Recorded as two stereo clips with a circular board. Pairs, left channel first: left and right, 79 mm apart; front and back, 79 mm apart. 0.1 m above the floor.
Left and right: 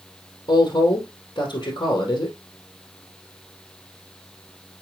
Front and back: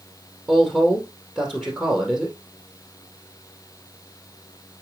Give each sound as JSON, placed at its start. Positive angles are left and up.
{"t": 0.5, "sound": "a woman speaking", "azimuth_deg": 75, "distance_m": 3.0}